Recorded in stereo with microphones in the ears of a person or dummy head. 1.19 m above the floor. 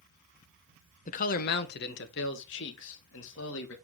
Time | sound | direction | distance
1.1 | a man speaking | 40° left (ahead or behind) | 0.7 m